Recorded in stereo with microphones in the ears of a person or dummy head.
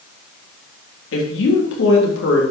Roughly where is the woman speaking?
Left.